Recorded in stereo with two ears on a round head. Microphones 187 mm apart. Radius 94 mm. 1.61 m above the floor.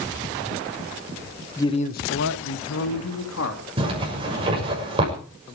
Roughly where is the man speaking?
Centre.